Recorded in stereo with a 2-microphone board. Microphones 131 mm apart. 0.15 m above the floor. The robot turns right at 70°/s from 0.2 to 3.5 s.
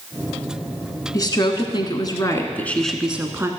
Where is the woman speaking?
55° left, 1.2 m; by 3.5 s 140° right, 1.2 m.